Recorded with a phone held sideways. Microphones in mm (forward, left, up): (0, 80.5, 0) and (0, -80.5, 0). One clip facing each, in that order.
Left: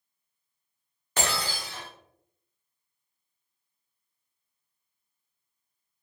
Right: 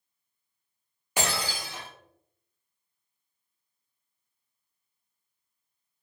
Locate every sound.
1.2 s breaking glass: 10° right (ahead or behind), 1.2 m